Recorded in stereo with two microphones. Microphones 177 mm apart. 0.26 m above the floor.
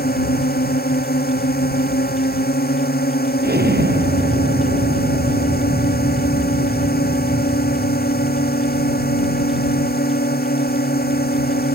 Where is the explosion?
70° right (ahead or behind).